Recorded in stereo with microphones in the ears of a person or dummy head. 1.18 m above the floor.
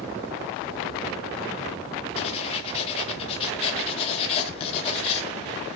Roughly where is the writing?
Left.